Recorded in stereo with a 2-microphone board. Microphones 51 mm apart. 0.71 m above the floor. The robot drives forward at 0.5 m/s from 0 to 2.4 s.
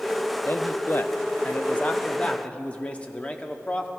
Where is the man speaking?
40° left (ahead or behind), 0.6 m; by 3.9 s 25° left (ahead or behind), 1.0 m.